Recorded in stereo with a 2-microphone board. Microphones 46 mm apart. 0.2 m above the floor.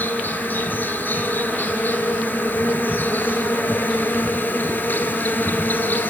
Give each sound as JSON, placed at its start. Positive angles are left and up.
{"t": 0.0, "sound": "an insect", "side_deg": 45, "distance_m": 1.3}